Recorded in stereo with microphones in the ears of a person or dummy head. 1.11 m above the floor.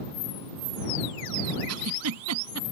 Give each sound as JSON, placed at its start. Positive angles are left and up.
{"t": 1.7, "sound": "a giggle", "side_deg": -85}